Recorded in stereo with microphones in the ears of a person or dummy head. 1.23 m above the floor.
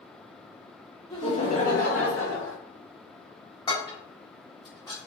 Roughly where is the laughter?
Left.